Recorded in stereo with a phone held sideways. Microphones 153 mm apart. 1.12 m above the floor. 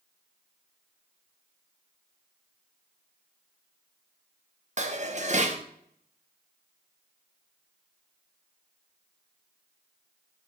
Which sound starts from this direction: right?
Dishes clattering, at 4.8 s.